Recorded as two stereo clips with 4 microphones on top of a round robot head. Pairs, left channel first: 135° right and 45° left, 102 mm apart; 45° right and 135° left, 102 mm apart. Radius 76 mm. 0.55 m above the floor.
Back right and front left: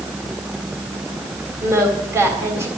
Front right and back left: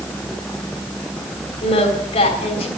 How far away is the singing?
About 3.5 m.